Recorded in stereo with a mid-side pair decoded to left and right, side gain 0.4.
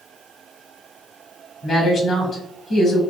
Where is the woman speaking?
65° left, 1.9 m.